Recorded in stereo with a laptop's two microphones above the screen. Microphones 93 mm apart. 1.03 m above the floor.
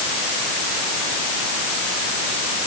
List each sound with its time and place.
Only background noise.